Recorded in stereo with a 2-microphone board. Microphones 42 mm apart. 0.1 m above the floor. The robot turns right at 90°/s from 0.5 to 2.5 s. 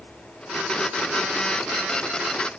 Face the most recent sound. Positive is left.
No sound to turn to.